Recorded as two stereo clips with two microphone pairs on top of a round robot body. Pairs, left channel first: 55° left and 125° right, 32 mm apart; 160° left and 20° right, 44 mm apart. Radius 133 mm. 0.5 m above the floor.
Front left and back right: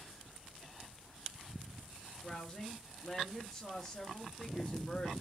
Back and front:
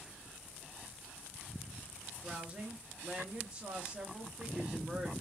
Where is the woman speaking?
10° right, 1.0 m.